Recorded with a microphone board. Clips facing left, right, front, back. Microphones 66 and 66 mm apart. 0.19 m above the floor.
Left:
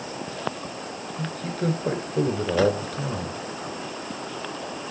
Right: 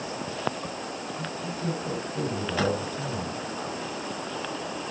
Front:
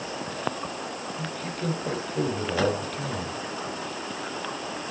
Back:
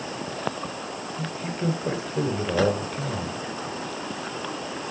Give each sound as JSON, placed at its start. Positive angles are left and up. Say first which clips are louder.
{"t": 1.2, "sound": "a man speaking", "louder": "left 7 dB, back 4 dB", "azimuth_deg": 105, "distance_m": 2.5}